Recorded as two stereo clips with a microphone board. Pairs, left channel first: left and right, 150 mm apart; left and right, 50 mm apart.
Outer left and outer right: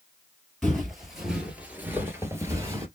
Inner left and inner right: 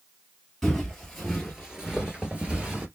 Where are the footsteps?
Centre (ahead or behind), 1.7 m; by 2.9 s 20° right (ahead or behind), 1.5 m.